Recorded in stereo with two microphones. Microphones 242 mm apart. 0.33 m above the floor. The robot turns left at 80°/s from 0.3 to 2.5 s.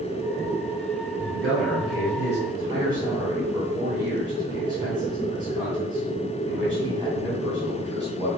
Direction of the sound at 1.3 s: 50° right (ahead or behind).